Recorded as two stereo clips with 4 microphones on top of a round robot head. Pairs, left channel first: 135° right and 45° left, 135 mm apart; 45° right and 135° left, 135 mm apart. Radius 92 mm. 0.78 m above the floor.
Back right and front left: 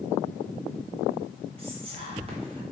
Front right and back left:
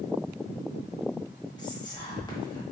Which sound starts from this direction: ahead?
Whispering, at 1.6 s.